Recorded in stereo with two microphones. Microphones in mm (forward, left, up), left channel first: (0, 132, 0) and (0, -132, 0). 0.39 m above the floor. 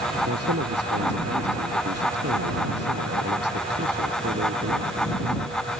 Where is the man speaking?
65° right (ahead or behind).